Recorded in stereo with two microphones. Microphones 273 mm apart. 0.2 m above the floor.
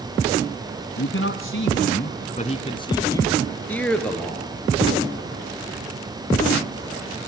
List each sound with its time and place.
1.0 s a man speaking: 50° left (ahead or behind), 1.5 m; by 4.5 s centre (ahead or behind), 3.5 m